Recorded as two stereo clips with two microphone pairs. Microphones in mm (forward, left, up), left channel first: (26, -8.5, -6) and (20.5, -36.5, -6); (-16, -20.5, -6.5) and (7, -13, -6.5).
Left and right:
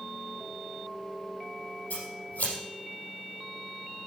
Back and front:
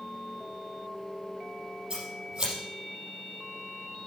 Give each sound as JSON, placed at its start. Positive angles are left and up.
{"t": 1.9, "sound": "scissors", "azimuth_deg": 80, "distance_m": 4.5}